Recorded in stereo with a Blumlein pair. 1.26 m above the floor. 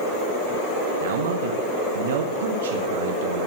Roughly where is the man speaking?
Ahead right.